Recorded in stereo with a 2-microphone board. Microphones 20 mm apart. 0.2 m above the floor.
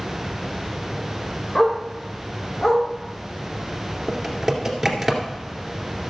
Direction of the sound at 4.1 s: 10° right (ahead or behind).